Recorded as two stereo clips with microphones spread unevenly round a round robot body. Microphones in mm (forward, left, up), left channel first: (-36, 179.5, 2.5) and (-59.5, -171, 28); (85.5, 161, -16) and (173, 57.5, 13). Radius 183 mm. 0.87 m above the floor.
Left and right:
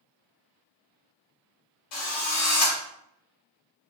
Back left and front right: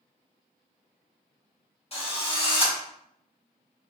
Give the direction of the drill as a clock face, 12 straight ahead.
9 o'clock.